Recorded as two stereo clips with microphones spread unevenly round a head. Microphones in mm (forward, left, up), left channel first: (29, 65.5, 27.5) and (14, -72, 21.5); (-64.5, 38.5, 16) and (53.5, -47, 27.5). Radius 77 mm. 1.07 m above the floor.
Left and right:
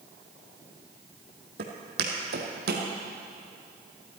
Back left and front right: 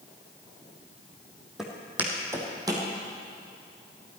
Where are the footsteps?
120° right, 2 m; by 2.9 s 95° right, 2.5 m.